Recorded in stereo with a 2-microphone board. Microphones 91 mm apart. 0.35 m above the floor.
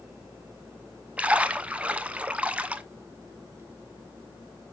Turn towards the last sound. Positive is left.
turn(degrees=-15)  # may be behind; listen again after turning